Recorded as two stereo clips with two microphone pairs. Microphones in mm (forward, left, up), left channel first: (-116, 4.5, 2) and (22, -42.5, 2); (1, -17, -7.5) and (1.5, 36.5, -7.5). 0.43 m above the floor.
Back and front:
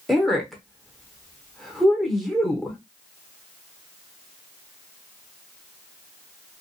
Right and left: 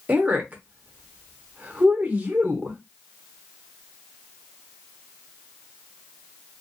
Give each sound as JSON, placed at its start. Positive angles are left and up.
{"t": 0.1, "sound": "a woman speaking", "azimuth_deg": 80, "distance_m": 0.8}